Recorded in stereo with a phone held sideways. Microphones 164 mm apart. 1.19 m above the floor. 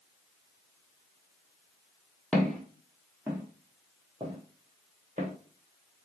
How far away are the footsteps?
About 1.7 m.